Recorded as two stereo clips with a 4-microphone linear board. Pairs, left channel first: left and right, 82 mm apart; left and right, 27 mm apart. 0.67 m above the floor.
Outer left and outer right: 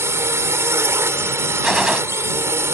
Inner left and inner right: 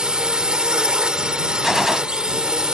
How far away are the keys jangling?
No keys jangling in this recording.